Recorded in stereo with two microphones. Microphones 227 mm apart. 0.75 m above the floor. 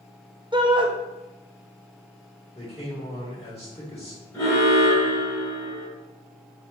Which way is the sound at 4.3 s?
15° left (ahead or behind).